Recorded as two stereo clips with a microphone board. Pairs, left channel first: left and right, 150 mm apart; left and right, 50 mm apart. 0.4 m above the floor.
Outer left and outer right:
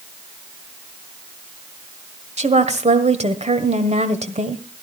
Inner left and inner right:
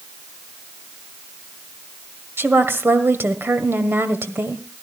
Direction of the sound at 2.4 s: 50° right (ahead or behind).